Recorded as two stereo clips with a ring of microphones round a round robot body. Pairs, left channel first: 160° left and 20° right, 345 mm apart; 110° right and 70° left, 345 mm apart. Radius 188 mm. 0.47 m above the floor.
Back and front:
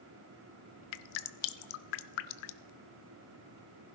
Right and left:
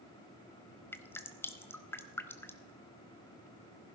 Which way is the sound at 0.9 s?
165° left.